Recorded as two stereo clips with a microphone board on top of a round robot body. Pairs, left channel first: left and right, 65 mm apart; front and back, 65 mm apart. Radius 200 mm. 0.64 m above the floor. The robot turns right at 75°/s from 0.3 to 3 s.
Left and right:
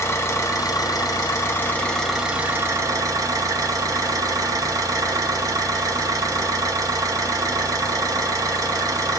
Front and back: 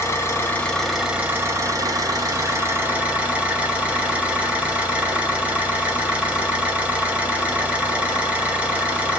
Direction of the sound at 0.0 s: 50° left.